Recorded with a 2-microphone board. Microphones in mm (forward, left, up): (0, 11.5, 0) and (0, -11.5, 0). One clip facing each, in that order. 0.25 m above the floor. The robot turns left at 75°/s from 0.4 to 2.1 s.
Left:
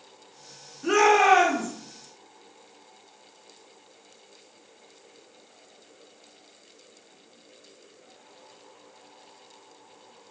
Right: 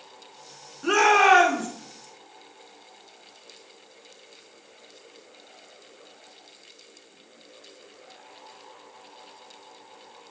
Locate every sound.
0.8 s a shout: 40° right, 2.5 m; by 1.7 s 100° right, 2.5 m